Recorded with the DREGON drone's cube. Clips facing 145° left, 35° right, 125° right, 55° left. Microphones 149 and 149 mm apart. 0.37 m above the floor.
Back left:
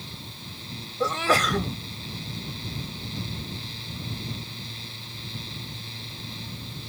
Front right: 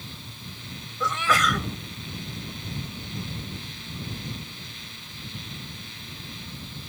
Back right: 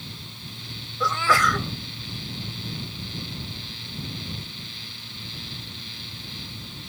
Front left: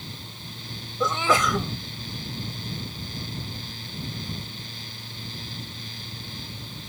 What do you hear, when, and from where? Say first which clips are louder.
1.0 s a sneeze: back left 2 dB, front left 1 dB; 110° left